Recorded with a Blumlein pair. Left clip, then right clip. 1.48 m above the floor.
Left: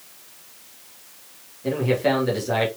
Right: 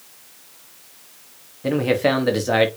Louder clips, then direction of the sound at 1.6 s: Right 2 dB; 25° right.